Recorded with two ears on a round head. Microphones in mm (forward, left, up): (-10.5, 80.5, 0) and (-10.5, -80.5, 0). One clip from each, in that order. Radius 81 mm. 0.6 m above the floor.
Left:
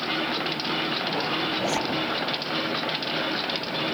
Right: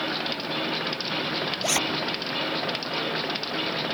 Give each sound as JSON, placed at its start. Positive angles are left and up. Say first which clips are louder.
{"t": 1.6, "sound": "a zipper", "louder": "right 1 dB", "side_deg": -70}